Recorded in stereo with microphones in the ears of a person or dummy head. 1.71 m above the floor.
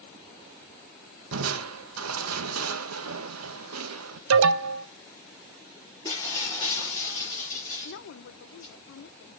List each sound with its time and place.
1.3 s crushing: 85° right, 1.1 m
4.3 s an alarm: 70° right (ahead or behind), 0.7 m
6.0 s breaking glass: 15° left (ahead or behind), 5 m
7.8 s a woman speaking: 65° left (ahead or behind), 0.7 m